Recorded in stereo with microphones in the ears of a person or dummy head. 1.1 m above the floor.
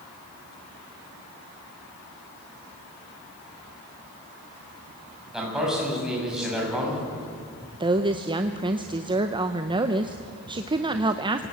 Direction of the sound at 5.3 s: 5° right (ahead or behind).